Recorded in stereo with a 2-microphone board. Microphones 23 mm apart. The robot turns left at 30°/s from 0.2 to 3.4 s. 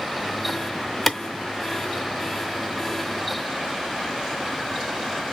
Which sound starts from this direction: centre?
A clap, at 1.1 s.